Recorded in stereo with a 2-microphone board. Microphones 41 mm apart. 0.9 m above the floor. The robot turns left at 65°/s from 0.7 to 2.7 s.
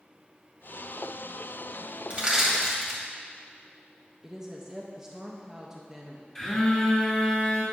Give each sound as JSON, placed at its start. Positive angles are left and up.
{"t": 2.1, "sound": "crushing", "side_deg": -30, "distance_m": 1.9}
{"t": 4.2, "sound": "a woman speaking", "side_deg": -20, "distance_m": 0.8}
{"t": 6.3, "sound": "a phone buzzing", "side_deg": 15, "distance_m": 2.0}